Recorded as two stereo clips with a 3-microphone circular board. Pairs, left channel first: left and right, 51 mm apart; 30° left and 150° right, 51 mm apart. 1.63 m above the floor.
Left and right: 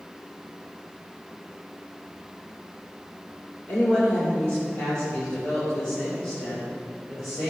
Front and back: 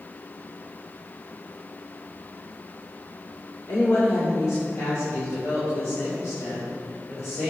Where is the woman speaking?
35° left, 4.5 m; by 7.5 s 15° left, 8.5 m.